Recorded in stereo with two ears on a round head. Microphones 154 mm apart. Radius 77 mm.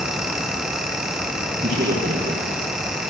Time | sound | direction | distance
1.6 | a man speaking | 35° right (ahead or behind) | 7.5 m